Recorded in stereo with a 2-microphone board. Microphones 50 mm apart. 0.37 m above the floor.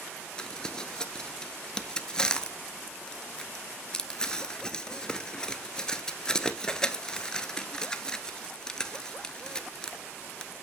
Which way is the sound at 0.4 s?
15° left (ahead or behind).